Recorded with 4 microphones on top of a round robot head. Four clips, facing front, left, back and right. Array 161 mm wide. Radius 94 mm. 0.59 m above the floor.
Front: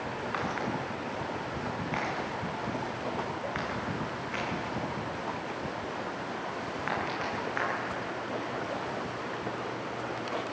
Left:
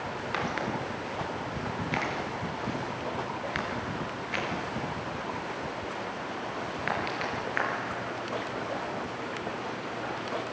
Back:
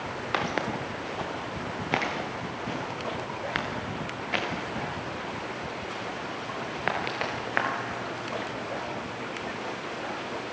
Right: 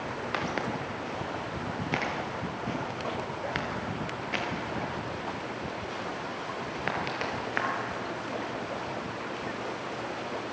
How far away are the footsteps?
About 4 m.